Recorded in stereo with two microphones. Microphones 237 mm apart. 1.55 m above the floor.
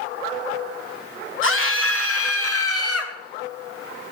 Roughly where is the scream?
Left.